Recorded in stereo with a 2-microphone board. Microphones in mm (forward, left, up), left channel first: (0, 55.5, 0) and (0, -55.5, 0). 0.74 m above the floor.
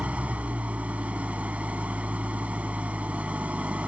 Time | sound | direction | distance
0.0 | an engine running | 10° right (ahead or behind) | ?